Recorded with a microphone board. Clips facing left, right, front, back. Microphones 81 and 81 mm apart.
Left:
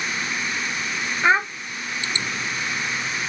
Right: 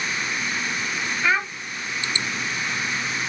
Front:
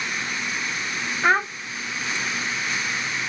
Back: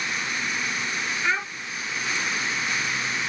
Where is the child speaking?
35° left, 0.6 m.